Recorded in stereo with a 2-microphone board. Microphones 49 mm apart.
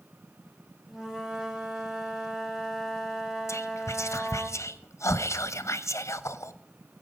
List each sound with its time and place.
0.9 s a flute: 10° right (ahead or behind), 1.9 m
3.5 s whispering: 75° left (ahead or behind), 0.7 m